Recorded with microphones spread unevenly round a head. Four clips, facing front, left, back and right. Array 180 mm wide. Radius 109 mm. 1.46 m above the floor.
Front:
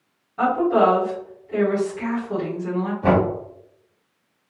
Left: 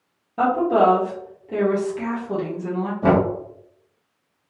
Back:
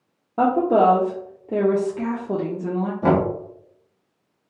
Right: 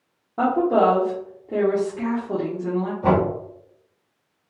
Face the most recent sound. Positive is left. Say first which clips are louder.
# left 2 dB, even
turn(degrees=150)